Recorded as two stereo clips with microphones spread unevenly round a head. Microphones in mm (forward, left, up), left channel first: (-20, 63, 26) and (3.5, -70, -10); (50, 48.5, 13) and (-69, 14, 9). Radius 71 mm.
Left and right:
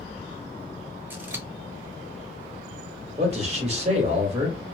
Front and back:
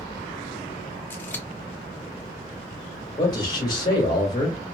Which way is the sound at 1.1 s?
50° right.